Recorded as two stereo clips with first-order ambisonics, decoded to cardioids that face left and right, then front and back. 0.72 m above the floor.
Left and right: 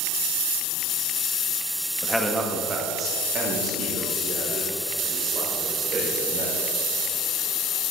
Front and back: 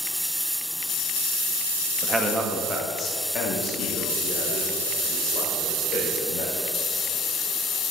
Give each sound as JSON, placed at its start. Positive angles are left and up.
{"t": 2.0, "sound": "a man speaking", "azimuth_deg": 170, "distance_m": 0.9}